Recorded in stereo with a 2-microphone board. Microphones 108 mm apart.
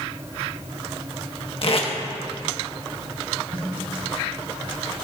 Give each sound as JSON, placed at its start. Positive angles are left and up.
{"t": 1.6, "sound": "tape being pulled", "side_deg": 55, "distance_m": 1.8}
{"t": 3.5, "sound": "a snare drum", "side_deg": 50, "distance_m": 3.0}